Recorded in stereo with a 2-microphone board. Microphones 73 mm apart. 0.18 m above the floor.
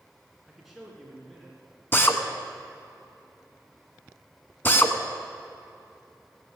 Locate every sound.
0.5 s a man speaking: 5° right (ahead or behind), 2 m; by 1.8 s 10° left (ahead or behind), 3 m
1.9 s a drill: 30° left (ahead or behind), 1.0 m